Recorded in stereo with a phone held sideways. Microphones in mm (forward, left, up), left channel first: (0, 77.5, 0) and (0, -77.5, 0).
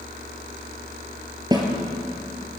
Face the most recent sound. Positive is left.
turn(degrees=-25)  # may be behind; listen again after turning